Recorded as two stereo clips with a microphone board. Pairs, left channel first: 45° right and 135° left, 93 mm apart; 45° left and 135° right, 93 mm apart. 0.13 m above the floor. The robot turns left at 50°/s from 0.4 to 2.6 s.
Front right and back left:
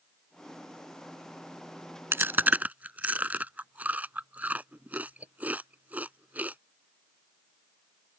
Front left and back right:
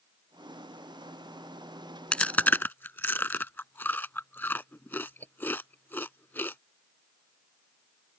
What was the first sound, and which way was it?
Chewing, 110° left.